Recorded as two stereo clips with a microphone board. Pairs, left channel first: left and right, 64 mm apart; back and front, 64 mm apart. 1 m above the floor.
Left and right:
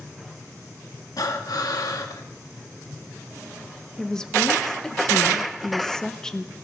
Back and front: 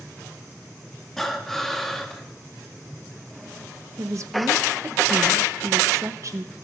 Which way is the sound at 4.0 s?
15° left.